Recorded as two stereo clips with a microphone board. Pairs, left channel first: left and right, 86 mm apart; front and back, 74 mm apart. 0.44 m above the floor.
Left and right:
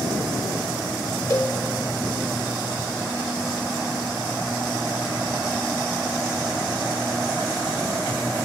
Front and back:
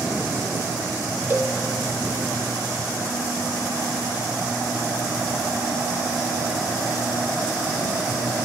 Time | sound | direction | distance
1.3 | a cowbell | 125° left | 1.1 m